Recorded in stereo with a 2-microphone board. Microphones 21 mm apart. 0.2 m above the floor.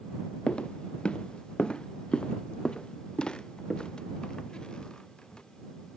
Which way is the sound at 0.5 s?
65° left (ahead or behind).